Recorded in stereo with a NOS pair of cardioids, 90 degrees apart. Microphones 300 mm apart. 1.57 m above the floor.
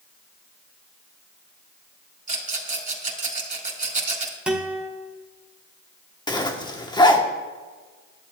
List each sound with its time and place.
2.3 s a rattle: 25° right, 2.5 m
4.5 s a guitar: 5° right, 1.6 m
6.3 s a zipper: 15° left, 1.1 m